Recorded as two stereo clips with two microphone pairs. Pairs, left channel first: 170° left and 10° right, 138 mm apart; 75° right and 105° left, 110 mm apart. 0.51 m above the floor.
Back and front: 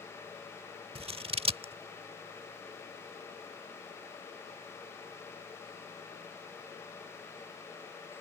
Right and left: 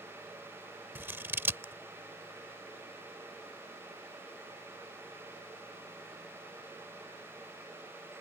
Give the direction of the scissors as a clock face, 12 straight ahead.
11 o'clock.